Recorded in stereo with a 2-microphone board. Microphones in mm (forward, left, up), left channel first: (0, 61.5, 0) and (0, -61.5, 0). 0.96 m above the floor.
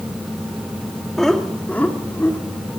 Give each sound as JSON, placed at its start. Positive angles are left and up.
{"t": 1.2, "sound": "laughter", "side_deg": 0, "distance_m": 2.5}